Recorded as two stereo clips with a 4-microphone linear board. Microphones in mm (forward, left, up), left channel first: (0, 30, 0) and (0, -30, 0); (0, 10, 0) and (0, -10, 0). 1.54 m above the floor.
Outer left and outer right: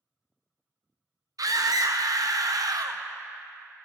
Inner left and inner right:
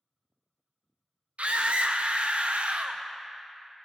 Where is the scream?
80° right, 0.6 m.